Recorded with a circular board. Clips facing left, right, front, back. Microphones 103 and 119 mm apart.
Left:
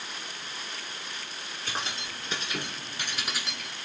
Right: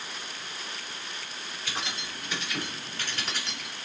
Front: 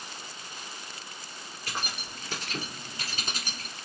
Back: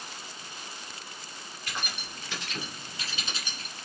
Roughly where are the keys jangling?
Ahead left.